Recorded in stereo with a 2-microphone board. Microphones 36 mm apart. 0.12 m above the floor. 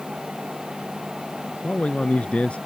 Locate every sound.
1.6 s a man speaking: 35° left (ahead or behind)